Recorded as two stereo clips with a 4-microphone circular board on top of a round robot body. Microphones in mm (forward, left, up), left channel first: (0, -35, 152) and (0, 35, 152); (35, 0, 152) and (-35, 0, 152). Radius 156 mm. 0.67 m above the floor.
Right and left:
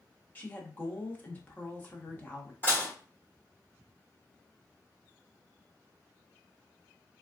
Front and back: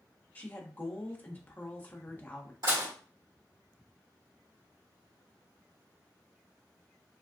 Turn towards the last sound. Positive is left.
turn(degrees=-155)